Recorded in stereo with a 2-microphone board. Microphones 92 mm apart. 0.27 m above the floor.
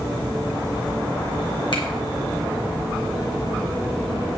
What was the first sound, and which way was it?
A finger snap, 60° left (ahead or behind).